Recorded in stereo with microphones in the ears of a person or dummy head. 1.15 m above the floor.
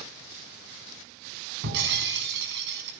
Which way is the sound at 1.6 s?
65° right (ahead or behind).